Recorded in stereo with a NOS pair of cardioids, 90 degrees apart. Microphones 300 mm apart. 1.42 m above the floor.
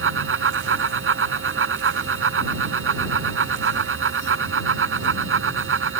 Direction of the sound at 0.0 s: 45° right.